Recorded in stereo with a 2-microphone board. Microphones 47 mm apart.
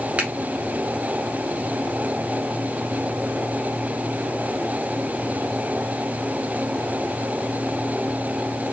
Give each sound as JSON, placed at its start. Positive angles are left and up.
{"t": 0.2, "sound": "a finger snap", "side_deg": -25, "distance_m": 0.9}